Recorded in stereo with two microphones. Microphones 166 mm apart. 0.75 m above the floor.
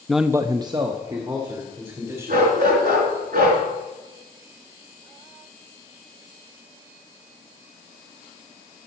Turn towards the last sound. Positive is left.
turn(degrees=-65)  # may be behind; listen again after turning